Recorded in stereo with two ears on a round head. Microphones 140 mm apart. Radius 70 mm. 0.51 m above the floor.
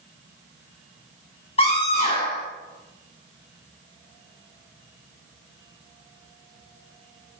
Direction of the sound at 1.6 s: 40° left (ahead or behind).